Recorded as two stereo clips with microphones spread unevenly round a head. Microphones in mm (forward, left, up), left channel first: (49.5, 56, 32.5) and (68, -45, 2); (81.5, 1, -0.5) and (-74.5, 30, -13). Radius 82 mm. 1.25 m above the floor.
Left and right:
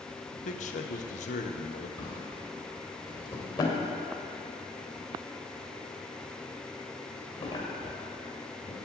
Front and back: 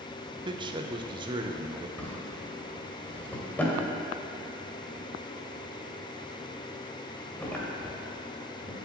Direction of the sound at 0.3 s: 110° left.